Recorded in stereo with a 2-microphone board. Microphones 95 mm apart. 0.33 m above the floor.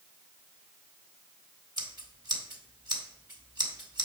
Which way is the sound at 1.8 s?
50° right (ahead or behind).